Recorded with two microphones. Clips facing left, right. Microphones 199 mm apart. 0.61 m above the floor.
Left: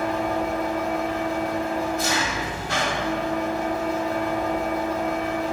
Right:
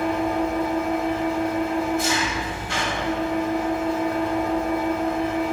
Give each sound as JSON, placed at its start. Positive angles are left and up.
{"t": 0.0, "sound": "an engine running", "side_deg": 40, "distance_m": 1.6}